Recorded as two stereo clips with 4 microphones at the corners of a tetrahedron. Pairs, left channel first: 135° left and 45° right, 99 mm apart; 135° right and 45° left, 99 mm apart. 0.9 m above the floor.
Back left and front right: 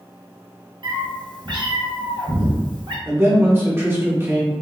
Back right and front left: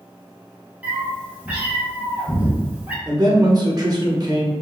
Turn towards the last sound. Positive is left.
turn(degrees=10)